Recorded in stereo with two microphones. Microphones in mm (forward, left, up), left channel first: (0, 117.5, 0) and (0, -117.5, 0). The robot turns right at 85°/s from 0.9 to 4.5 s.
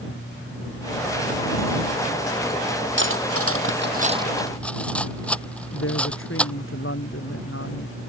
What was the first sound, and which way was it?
Cutlery clinking, 55° right (ahead or behind).